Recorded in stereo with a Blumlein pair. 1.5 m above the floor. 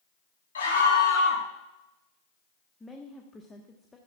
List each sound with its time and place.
0.6 s a scream: 70° left, 4 m
2.8 s a woman speaking: 10° left, 1.3 m